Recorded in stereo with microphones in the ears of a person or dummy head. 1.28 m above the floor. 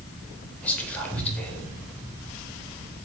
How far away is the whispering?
About 0.7 m.